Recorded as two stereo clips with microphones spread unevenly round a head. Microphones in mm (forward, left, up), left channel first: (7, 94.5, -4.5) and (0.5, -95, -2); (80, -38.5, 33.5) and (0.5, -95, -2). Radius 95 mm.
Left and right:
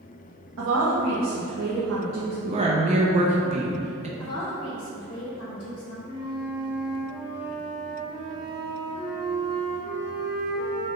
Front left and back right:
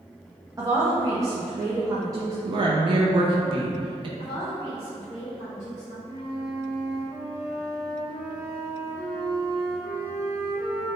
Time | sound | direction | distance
0.6 | a woman speaking | 105° right | 0.7 m
2.5 | a woman speaking | 150° right | 0.6 m
4.2 | a woman speaking | 155° left | 1.5 m
6.0 | a flute | 125° left | 1.9 m